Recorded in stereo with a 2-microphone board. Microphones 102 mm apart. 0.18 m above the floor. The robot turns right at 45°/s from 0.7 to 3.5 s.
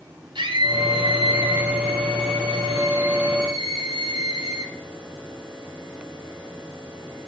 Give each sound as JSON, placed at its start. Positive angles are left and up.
{"t": 0.3, "sound": "a scream", "azimuth_deg": -125, "distance_m": 9.0}